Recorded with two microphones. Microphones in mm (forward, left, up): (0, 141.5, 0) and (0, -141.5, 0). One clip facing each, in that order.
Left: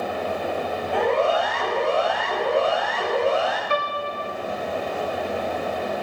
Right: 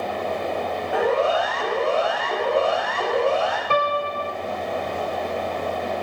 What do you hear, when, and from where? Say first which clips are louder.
0.9 s a siren: right 1 dB; 5° right (ahead or behind), 8 m; by 3.6 s 5° left (ahead or behind), 7.5 m
3.7 s a piano: right 4 dB; 55° right (ahead or behind), 1.3 m